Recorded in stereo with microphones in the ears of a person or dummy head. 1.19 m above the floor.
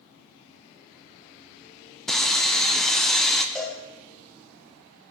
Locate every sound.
2.1 s sawing: 5° right (ahead or behind), 0.6 m
3.5 s a cowbell: 5° left (ahead or behind), 2 m